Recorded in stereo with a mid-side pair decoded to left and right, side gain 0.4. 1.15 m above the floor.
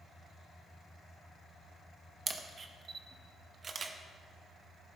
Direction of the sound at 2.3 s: 45° right.